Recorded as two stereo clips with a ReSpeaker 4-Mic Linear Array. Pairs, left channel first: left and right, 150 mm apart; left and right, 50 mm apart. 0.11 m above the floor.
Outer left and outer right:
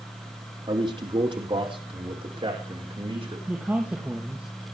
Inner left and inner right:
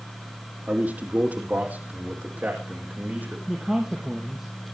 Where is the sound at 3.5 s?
10° right (ahead or behind), 3 m.